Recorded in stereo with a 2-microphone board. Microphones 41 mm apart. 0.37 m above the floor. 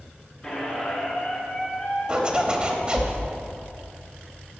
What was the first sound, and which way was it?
A squeak, 10° left (ahead or behind).